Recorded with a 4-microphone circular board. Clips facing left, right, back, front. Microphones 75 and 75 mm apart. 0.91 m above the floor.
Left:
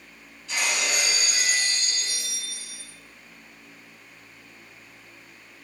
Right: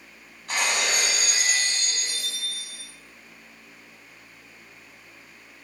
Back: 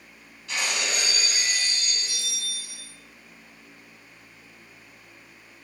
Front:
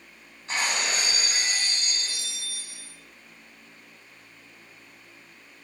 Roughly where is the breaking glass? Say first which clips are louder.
Right 2 dB, front 1 dB; ahead right.